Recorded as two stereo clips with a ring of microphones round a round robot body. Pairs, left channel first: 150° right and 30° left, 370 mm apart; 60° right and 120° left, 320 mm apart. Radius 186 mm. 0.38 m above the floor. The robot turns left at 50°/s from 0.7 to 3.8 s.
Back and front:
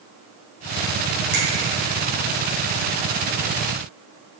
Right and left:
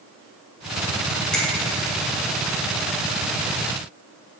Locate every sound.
1.3 s a finger snap: 30° left, 1.7 m; by 1.4 s 25° left, 1.7 m